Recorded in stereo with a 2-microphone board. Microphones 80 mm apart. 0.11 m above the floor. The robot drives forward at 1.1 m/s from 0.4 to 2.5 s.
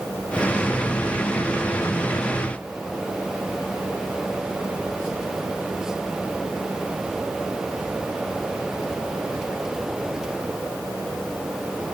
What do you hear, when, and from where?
Only background noise.